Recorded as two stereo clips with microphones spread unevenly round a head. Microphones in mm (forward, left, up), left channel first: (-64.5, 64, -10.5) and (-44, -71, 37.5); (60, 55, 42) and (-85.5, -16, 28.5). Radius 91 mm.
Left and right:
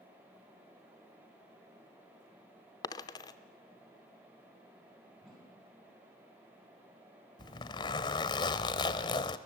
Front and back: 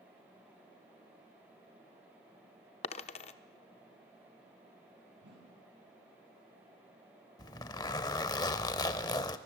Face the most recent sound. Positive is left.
turn(degrees=30)